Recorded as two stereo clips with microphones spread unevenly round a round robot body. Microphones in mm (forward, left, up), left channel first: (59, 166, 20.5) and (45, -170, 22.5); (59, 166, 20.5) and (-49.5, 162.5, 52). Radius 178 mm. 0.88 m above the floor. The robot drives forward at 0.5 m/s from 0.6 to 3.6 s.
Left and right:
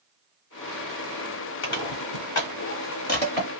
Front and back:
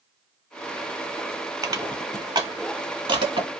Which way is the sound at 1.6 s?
140° left.